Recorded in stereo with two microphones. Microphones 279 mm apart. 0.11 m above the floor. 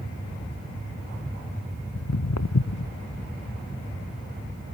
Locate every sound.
1.9 s footsteps: 70° left (ahead or behind)